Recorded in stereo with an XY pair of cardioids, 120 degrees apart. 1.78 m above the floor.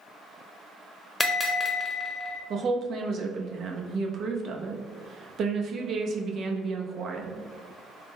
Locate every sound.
1.2 s a bell: 25° left, 0.8 m
2.5 s a woman speaking: 50° right, 0.7 m